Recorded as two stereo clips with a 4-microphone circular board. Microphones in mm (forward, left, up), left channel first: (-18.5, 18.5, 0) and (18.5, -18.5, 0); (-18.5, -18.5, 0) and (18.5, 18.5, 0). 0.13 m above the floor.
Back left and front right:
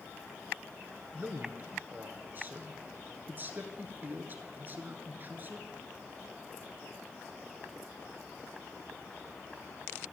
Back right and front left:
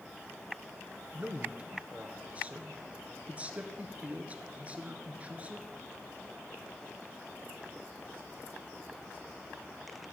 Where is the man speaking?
10° right, 1.5 m.